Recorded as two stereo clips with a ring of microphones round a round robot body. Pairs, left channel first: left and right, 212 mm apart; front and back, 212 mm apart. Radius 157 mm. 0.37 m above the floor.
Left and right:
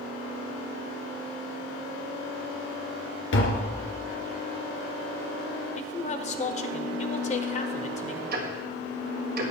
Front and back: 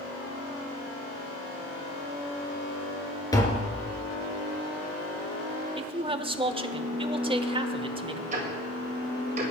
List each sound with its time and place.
3.3 s tapping: 75° left, 2 m
5.8 s a man speaking: 125° left, 1.1 m
8.3 s ticking: 125° right, 1.8 m